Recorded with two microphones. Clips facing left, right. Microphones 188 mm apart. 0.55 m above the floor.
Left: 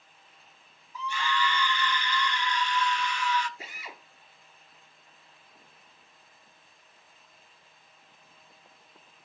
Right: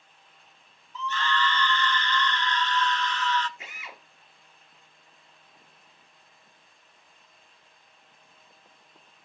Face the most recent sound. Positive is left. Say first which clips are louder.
# left 1 dB
turn(degrees=35)  # may be behind; listen again after turning